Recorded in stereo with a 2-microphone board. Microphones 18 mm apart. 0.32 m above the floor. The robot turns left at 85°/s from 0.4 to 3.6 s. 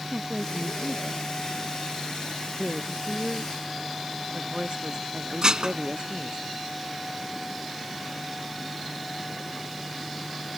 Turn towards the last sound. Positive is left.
turn(degrees=-35)  # may be behind; listen again after turning